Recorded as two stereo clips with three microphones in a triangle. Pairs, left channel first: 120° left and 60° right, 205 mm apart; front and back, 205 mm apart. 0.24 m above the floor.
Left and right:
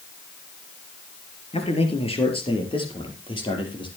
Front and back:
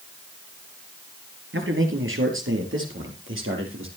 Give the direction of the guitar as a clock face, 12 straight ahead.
No guitar in this recording.